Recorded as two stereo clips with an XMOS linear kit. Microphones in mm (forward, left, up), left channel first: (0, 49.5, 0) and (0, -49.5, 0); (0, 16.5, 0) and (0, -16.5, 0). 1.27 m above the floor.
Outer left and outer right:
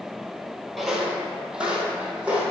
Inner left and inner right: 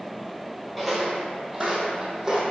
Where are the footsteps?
Centre (ahead or behind), 1.6 m; by 2.4 s 15° right (ahead or behind), 2.5 m.